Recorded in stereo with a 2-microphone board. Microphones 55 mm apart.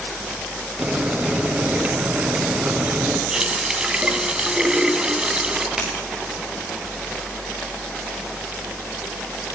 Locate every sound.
0.8 s boiling: 30° right (ahead or behind), 3 m
3.3 s a running tap: 15° right (ahead or behind), 1.6 m
5.8 s scissors: 10° right (ahead or behind), 9.5 m